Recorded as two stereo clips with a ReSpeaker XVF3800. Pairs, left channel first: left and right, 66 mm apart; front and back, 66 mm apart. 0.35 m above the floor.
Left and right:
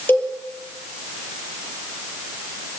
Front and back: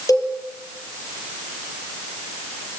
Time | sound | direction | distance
0.1 | a cowbell | 30° left | 7 m